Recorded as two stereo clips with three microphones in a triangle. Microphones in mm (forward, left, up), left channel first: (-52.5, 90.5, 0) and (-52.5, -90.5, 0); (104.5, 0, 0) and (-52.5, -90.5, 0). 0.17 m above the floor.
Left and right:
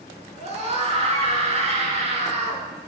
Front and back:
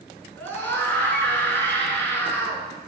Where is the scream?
45° right, 1.7 m.